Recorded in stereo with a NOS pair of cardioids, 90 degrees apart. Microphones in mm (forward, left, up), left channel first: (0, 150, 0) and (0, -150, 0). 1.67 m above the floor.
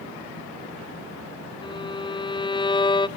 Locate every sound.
1.6 s a violin: 15° left, 0.6 m